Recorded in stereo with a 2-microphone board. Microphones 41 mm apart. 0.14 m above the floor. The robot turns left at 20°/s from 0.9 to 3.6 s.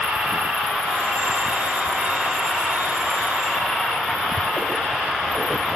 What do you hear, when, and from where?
0.0 s an insect: 140° right, 0.8 m; by 5.8 s 170° left, 0.8 m